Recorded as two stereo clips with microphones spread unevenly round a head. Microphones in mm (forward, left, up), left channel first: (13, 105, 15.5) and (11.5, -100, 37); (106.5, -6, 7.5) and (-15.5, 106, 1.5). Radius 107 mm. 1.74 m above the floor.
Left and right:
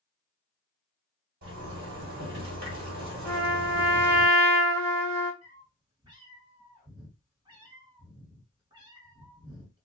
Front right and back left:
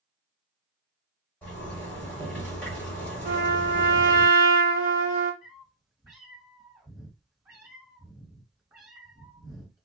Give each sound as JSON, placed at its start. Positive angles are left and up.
{"t": 1.4, "sound": "a zipper", "azimuth_deg": -120, "distance_m": 1.9}
{"t": 3.2, "sound": "a trumpet", "azimuth_deg": -165, "distance_m": 1.8}
{"t": 5.4, "sound": "a cat meowing", "azimuth_deg": -150, "distance_m": 2.0}